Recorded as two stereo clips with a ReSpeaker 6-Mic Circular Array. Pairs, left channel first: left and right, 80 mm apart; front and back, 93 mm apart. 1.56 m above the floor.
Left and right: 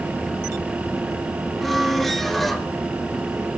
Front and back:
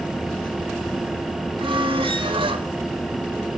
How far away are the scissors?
I don't hear scissors.